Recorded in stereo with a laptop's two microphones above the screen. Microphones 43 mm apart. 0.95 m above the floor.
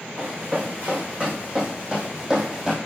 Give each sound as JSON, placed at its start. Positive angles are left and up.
{"t": 0.2, "sound": "running footsteps", "side_deg": -40, "distance_m": 4.0}